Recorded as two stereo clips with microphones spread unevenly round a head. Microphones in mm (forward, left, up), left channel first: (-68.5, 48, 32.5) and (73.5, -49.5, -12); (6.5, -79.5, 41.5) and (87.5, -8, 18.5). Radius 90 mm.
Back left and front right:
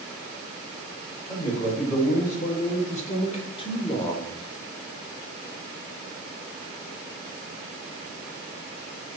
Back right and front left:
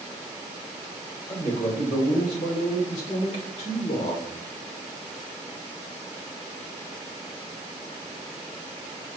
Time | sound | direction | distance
1.3 | a man speaking | 175° right | 2 m